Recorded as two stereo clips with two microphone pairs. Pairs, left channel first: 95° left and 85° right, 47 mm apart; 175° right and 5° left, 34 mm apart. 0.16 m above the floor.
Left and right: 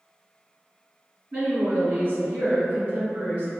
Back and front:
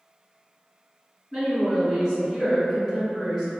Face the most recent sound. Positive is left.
turn(degrees=-90)